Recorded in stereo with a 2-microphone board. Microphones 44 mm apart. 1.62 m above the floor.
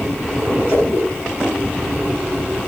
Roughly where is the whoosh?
Left.